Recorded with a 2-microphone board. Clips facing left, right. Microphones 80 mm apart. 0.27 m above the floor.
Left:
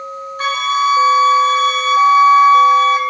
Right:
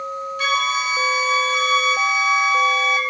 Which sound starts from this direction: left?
A flute, at 0.4 s.